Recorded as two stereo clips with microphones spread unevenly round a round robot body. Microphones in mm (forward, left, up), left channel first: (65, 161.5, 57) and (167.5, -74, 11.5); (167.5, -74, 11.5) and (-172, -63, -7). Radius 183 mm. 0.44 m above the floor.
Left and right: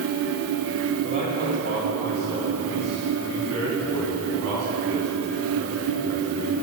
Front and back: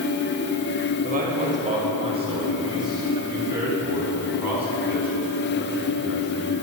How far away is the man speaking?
About 2.5 m.